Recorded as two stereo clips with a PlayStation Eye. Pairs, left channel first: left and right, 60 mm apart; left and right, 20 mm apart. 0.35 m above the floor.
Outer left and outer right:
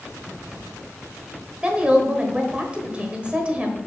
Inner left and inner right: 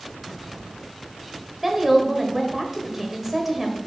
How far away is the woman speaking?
About 1.1 m.